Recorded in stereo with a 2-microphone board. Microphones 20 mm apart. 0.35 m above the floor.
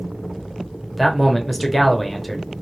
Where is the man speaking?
Centre (ahead or behind), 0.9 m.